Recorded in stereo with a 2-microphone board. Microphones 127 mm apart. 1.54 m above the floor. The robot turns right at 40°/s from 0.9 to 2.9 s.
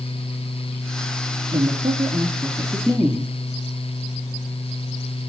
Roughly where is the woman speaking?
Right.